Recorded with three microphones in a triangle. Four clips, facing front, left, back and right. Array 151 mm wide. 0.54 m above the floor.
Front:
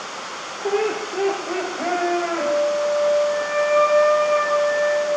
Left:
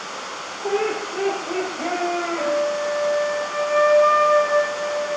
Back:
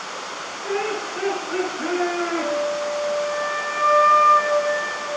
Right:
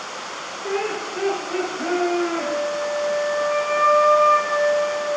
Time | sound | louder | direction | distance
0.6 | laughter | left 3 dB, front 4 dB | 40° left | 1.6 m
2.4 | a flute | left 2 dB, front 3 dB | 60° left | 3 m